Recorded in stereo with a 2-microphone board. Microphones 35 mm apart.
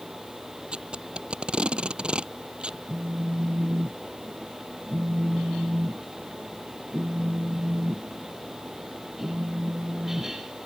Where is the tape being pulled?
30° right (ahead or behind).